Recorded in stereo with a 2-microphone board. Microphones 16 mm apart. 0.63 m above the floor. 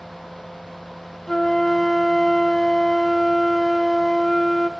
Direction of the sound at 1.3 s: 20° left (ahead or behind).